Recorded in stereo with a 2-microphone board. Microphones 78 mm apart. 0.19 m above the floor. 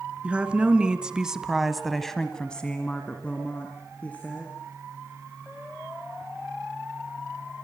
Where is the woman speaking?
15° right (ahead or behind), 2.5 m; by 4.5 s 20° left (ahead or behind), 3.5 m.